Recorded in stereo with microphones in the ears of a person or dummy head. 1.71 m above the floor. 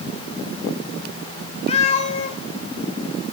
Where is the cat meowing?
30° left (ahead or behind), 3 m.